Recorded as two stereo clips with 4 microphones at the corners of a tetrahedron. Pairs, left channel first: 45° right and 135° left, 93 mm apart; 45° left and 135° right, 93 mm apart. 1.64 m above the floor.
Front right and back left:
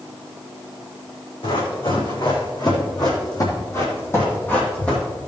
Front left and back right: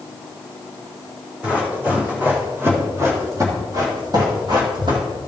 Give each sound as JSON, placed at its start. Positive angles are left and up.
{"t": 1.4, "sound": "running footsteps", "azimuth_deg": -60, "distance_m": 4.0}